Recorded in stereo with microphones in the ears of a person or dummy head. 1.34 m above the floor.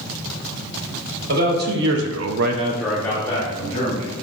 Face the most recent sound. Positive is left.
turn(degrees=30)  # may be behind; listen again after turning